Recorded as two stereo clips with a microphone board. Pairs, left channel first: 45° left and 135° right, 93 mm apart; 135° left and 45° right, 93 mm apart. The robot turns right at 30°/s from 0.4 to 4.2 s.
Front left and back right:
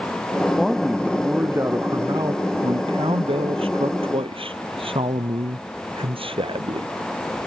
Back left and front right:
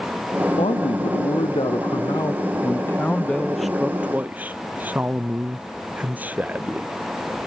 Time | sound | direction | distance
0.6 | a man speaking | 130° left | ?